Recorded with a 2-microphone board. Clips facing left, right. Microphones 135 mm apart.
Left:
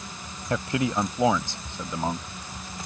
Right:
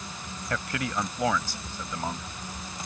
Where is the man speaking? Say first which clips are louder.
Left 6 dB; 25° left (ahead or behind).